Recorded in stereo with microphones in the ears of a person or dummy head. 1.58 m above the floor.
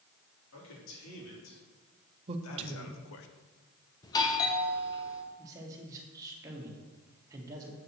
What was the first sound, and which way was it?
A man speaking, 90° left.